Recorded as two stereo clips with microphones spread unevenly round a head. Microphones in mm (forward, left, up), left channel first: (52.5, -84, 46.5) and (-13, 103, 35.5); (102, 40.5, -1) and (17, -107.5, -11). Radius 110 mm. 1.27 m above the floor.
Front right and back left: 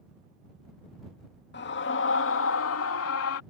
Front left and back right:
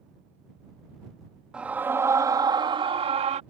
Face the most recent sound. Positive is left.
turn(degrees=-70)